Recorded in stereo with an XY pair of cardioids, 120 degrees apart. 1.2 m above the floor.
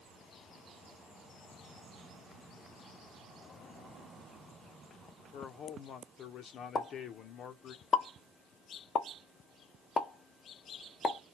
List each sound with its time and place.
5.3 s a man speaking: 55° left, 0.8 m
6.8 s a pop: 35° left, 0.7 m